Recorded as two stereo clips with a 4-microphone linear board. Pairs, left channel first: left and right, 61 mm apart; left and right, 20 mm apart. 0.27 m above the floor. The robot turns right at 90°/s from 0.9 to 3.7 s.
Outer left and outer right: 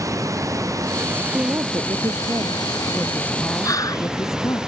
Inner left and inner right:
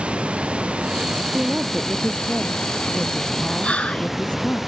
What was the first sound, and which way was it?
Running water, 60° right.